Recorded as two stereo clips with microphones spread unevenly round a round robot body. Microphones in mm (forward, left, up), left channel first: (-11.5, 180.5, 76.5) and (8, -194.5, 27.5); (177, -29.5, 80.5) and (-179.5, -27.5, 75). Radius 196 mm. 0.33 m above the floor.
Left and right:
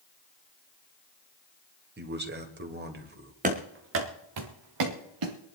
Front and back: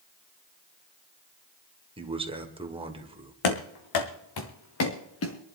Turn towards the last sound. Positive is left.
turn(degrees=-55)